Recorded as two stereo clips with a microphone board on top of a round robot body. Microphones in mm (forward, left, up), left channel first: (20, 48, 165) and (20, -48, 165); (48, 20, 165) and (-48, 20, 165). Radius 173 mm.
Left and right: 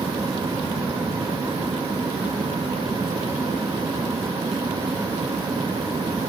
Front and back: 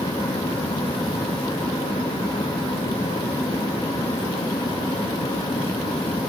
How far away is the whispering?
No whispering in this recording.